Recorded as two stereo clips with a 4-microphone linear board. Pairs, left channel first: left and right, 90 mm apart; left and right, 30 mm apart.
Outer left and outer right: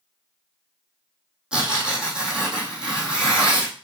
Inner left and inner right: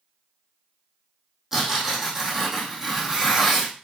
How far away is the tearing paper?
About 4 m.